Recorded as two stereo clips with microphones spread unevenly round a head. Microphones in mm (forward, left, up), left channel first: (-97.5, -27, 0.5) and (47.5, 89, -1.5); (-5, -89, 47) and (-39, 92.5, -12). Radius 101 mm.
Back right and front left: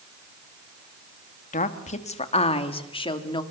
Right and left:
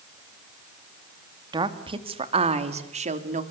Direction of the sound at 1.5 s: 170° left.